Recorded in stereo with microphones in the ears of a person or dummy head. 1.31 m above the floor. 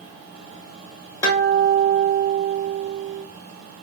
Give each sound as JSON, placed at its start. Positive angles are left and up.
{"t": 1.2, "sound": "a guitar", "side_deg": 20, "distance_m": 1.0}